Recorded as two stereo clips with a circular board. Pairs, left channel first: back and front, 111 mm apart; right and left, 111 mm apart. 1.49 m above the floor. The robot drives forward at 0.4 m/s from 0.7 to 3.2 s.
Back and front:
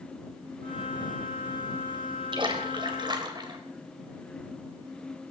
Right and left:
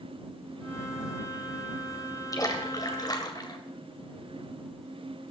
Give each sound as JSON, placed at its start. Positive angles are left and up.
{"t": 2.3, "sound": "a splash", "azimuth_deg": -35, "distance_m": 2.5}